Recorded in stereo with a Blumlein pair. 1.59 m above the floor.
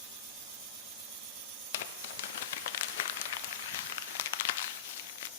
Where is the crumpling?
55° left, 1.0 m.